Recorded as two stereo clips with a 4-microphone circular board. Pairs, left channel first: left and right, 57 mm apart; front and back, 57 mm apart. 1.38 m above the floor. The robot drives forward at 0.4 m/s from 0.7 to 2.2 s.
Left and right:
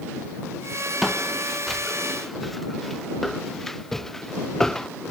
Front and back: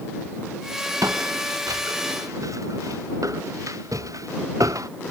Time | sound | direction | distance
1.0 | footsteps | straight behind | ?